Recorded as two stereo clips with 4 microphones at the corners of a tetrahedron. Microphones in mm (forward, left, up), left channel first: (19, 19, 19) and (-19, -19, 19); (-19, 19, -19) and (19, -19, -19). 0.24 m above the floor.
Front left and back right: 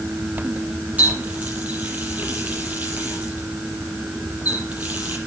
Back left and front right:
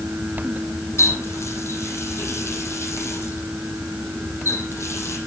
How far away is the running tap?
About 5 m.